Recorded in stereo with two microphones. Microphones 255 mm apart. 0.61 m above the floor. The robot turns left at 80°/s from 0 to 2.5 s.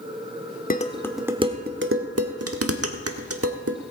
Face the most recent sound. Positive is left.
turn(degrees=-65)  # may be behind; listen again after turning